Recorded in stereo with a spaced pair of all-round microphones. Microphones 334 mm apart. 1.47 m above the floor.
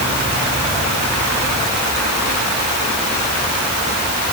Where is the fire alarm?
No fire alarm in this recording.